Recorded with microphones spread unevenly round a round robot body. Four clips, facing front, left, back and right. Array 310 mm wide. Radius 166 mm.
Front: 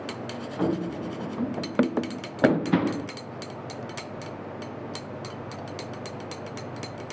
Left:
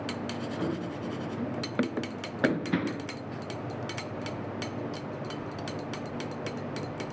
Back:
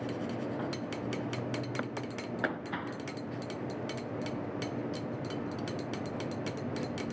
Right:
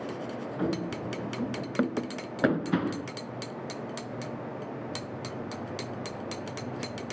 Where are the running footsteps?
15° right; by 3.1 s 5° right.